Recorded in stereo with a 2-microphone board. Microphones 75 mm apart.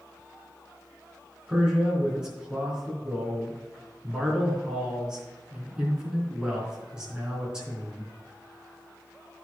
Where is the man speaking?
10° right (ahead or behind), 3.5 m.